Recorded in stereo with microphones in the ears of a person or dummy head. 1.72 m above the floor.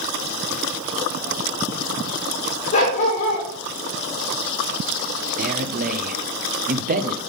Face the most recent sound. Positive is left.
turn(degrees=-40)  # may be behind; listen again after turning